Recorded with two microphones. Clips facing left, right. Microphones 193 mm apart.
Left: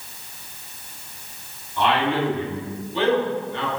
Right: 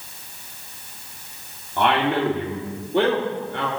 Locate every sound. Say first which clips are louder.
1.8 s a man speaking: right 1 dB; 55° right (ahead or behind), 1.4 m